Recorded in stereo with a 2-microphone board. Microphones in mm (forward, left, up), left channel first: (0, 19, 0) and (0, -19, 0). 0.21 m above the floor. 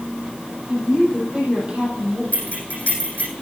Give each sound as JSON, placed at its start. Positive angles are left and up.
{"t": 0.7, "sound": "a woman speaking", "side_deg": -30, "distance_m": 7.5}
{"t": 2.3, "sound": "keys jangling", "side_deg": 45, "distance_m": 6.5}